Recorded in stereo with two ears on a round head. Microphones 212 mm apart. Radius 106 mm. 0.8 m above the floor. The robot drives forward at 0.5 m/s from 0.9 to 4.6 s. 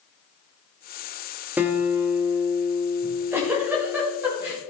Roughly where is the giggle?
Centre.